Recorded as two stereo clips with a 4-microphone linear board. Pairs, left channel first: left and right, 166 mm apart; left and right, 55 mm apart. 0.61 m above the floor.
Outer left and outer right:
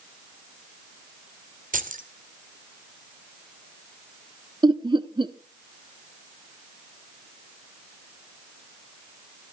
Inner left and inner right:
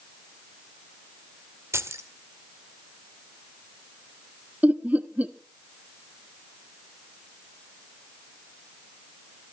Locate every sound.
1.7 s keys jangling: 50° right (ahead or behind), 1.6 m
4.6 s laughter: 25° right (ahead or behind), 1.0 m